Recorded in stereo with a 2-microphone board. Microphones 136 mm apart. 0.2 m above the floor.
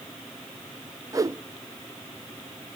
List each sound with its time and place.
1.1 s a whoosh: 25° right (ahead or behind), 0.5 m